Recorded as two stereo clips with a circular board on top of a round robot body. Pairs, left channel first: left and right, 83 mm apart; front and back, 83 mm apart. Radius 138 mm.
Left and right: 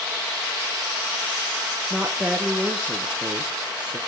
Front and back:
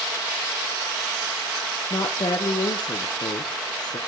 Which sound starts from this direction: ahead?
A woman speaking, at 1.9 s.